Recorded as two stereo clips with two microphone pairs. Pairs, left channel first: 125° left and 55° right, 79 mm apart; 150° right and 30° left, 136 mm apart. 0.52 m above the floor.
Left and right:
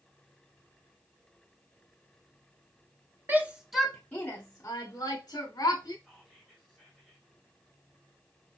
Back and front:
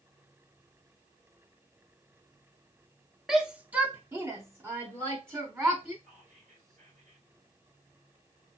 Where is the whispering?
25° left, 2 m.